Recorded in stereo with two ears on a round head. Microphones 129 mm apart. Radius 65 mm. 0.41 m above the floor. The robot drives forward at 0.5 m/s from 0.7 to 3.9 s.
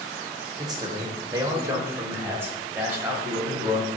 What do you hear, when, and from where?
0.6 s a man speaking: 25° right (ahead or behind), 0.9 m; by 3.9 s 10° right (ahead or behind), 2 m